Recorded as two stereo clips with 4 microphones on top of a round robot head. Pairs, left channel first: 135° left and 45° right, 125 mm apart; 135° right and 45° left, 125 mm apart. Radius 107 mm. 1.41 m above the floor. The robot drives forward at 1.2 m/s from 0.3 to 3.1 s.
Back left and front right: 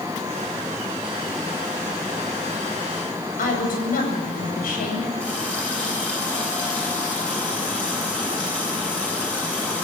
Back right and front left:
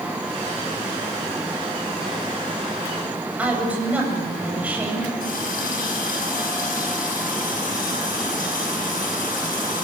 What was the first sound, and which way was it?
A woman speaking, 125° left.